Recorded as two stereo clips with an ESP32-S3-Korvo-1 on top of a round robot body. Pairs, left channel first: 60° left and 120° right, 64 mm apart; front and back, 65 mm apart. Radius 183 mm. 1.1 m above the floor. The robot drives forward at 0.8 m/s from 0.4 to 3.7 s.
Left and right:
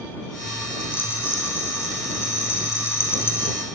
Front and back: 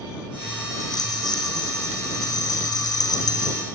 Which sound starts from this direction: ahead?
A rattle, at 0.8 s.